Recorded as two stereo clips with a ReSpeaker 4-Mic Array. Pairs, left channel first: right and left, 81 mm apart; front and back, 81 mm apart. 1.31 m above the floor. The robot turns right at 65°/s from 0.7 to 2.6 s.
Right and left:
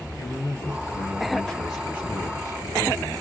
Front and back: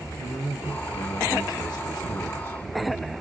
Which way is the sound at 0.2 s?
60° right.